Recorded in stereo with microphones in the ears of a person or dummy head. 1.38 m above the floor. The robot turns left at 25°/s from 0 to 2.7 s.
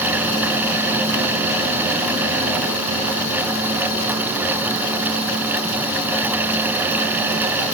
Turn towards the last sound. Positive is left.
No sound to turn to.